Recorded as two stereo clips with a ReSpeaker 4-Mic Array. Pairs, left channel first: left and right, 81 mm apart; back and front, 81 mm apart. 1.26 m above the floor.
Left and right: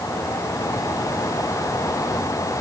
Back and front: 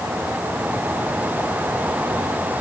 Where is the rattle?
No rattle in this recording.